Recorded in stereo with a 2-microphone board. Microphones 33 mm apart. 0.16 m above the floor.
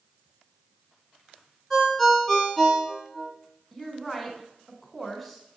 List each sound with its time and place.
1.7 s a ringtone: 10° left (ahead or behind), 1.1 m
3.7 s a woman speaking: 5° right (ahead or behind), 1.4 m